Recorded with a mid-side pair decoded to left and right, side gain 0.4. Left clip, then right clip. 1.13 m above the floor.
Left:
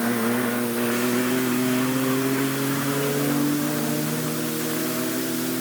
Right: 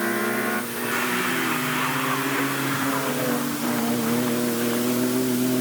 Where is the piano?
I don't hear a piano.